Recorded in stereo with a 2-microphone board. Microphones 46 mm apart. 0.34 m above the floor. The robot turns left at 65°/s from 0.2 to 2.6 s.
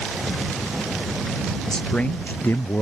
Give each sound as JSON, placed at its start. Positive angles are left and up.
{"t": 1.7, "sound": "a man speaking", "azimuth_deg": 175}